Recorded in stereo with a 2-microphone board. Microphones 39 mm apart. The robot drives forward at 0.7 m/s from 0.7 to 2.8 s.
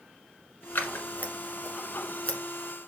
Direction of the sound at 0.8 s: 55° left (ahead or behind).